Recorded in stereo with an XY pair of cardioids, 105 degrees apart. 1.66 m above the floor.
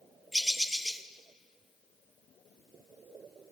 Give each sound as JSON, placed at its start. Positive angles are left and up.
{"t": 0.3, "sound": "a bird", "azimuth_deg": -5, "distance_m": 1.8}